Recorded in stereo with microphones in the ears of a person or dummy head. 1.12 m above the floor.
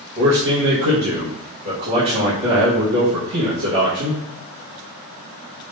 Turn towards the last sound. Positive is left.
turn(degrees=-45)  # may be behind; listen again after turning